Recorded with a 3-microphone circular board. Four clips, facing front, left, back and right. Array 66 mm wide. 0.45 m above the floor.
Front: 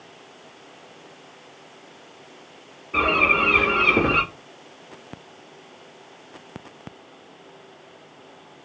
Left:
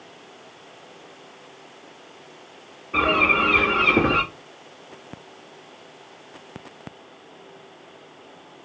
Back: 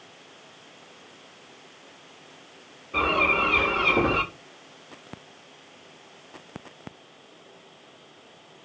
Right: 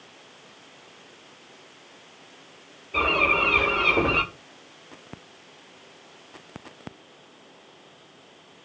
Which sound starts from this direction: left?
A bird, at 2.9 s.